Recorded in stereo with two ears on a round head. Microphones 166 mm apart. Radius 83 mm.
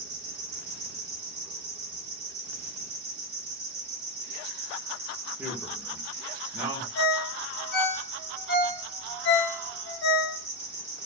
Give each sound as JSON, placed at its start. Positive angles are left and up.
{"t": 0.0, "sound": "an insect", "side_deg": -35, "distance_m": 1.5}
{"t": 5.4, "sound": "a man speaking", "side_deg": -10, "distance_m": 0.7}
{"t": 7.0, "sound": "a ringtone", "side_deg": 60, "distance_m": 1.1}